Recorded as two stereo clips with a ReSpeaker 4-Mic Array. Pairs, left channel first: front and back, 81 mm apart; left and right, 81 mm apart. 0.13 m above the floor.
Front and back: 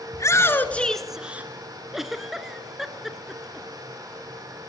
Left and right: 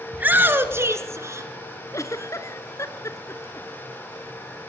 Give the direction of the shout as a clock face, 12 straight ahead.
1 o'clock.